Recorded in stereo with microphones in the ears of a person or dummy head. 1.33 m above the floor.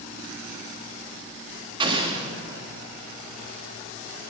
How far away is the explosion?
About 1.2 m.